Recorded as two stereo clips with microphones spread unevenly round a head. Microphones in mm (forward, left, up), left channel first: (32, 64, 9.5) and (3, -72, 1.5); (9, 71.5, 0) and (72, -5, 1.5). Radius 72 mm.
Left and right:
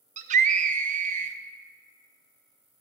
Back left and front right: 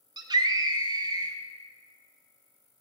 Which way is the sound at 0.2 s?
90° right.